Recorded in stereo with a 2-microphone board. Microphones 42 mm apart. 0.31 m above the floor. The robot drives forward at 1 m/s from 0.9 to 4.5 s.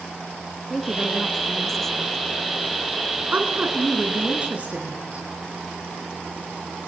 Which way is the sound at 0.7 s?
5° left (ahead or behind).